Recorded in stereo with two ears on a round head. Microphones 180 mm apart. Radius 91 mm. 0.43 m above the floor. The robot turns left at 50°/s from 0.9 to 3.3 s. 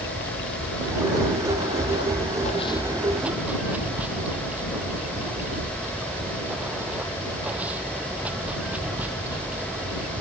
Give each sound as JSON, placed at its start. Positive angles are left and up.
{"t": 0.0, "sound": "running water", "azimuth_deg": 115}